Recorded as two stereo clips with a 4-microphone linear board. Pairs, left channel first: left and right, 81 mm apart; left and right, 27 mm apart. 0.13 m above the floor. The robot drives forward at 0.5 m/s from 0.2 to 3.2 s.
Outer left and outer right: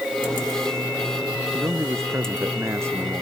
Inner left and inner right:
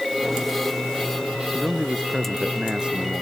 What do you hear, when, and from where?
1.5 s a man speaking: 35° right (ahead or behind); by 3.2 s 30° right (ahead or behind)